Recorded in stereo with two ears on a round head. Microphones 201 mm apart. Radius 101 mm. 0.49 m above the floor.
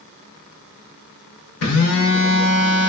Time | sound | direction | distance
1.6 | a phone buzzing | 70° left (ahead or behind) | 0.9 m